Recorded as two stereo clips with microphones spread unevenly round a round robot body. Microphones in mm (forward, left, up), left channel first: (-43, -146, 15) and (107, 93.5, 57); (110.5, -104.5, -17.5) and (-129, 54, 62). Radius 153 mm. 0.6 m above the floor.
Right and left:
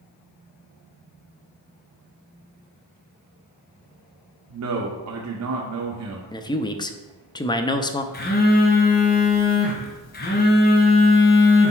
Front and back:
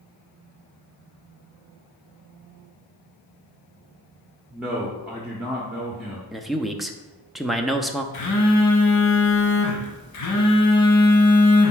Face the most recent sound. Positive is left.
turn(degrees=-65)